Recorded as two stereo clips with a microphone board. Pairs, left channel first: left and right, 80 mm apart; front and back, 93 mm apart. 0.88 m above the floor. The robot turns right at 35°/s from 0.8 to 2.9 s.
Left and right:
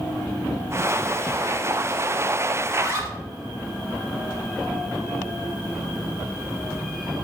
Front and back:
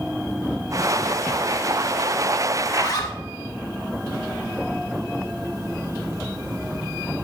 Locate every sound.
2.6 s a zipper: 55° right, 1.9 m; by 3.2 s 45° right, 1.9 m